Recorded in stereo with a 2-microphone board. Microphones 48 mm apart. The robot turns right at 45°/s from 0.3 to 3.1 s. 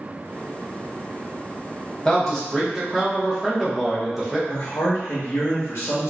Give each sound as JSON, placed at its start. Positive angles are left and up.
{"t": 2.0, "sound": "a man speaking", "side_deg": 10, "distance_m": 0.8}
{"t": 4.5, "sound": "a man speaking", "side_deg": 60, "distance_m": 0.7}